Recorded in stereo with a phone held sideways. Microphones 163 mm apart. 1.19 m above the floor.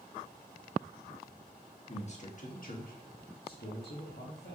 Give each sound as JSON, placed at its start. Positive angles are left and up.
{"t": 1.9, "sound": "a man speaking", "side_deg": 40, "distance_m": 1.4}